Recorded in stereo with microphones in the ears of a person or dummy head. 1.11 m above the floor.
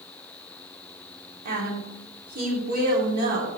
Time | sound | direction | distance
1.4 | a woman speaking | 50° right (ahead or behind) | 2.5 m